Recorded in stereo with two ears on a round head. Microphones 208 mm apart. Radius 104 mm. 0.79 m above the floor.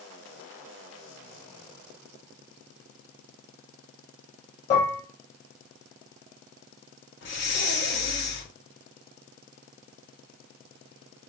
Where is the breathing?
50° left (ahead or behind), 1.2 m.